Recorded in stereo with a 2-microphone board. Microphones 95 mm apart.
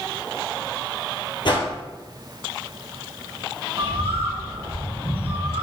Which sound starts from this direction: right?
A bird, at 3.8 s.